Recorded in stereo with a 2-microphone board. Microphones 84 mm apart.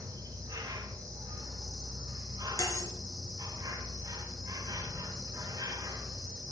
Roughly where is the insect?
Right.